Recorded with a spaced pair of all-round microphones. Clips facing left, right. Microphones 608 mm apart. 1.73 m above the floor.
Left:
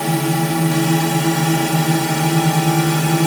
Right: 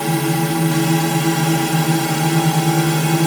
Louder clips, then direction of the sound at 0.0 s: Even; 5° left (ahead or behind).